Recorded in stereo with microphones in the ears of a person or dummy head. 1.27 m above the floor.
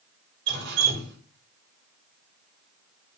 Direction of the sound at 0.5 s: 65° right (ahead or behind).